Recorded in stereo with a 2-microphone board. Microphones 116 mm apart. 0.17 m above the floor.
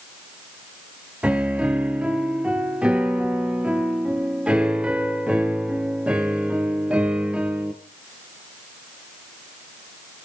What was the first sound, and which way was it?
A piano, 10° right (ahead or behind).